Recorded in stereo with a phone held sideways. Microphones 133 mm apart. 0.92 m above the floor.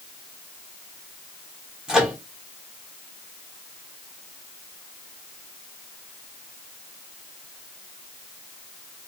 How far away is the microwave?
About 1.1 m.